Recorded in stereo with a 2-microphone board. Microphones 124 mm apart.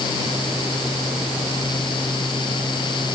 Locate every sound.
Only background noise.